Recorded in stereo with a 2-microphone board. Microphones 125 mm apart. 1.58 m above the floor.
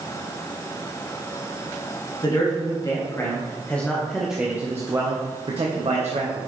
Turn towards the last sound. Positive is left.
turn(degrees=-65)  # may be behind; listen again after turning